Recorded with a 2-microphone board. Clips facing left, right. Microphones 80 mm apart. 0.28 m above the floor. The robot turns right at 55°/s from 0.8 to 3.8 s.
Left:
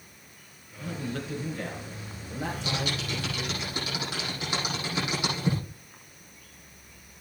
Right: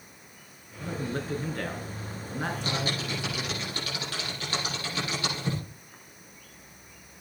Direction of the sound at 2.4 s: 60° right (ahead or behind).